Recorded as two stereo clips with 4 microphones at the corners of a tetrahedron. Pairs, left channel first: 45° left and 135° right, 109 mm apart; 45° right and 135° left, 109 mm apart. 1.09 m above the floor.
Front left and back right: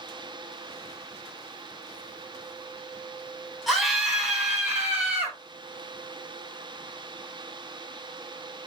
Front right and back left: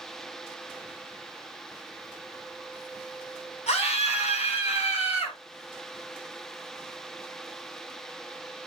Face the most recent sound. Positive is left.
turn(degrees=-60)